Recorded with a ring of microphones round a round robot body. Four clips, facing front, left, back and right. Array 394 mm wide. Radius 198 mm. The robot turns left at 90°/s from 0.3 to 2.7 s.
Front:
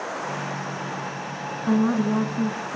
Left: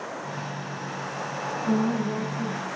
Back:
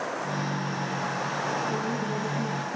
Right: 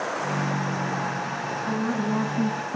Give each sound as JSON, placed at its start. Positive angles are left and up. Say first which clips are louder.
{"t": 1.7, "sound": "a woman speaking", "louder": "left 2 dB, front 8 dB", "azimuth_deg": 10, "distance_m": 3.0}